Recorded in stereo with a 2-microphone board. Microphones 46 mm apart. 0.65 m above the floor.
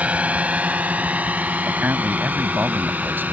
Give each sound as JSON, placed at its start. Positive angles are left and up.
{"t": 0.0, "sound": "a drone", "side_deg": -30}
{"t": 1.6, "sound": "a man speaking", "side_deg": -45}